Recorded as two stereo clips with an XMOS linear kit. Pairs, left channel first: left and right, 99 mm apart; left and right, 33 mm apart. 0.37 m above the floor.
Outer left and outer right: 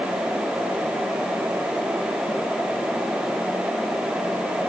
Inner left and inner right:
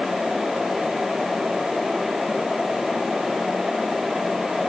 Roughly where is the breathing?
I don't hear breathing.